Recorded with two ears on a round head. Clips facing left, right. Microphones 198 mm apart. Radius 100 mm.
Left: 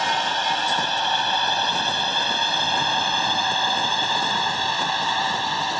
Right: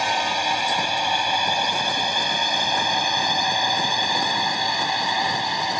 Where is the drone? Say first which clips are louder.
Right 1 dB; 10° right (ahead or behind); by 5.8 s 15° right (ahead or behind).